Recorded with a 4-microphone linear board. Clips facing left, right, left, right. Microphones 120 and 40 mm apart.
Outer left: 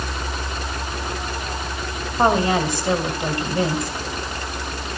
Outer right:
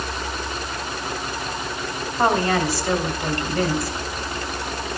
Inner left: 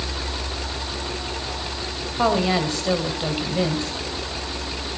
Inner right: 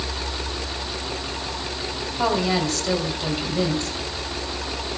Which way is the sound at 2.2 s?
20° left (ahead or behind).